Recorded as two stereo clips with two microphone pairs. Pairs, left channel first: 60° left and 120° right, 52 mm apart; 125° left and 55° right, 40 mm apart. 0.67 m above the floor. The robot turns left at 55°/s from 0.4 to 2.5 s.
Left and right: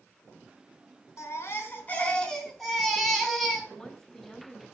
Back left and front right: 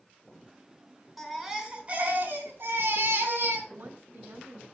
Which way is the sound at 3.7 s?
20° right.